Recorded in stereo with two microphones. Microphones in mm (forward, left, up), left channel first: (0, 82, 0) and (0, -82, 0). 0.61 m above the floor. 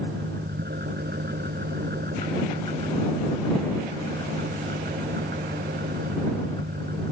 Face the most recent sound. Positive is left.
turn(degrees=-80)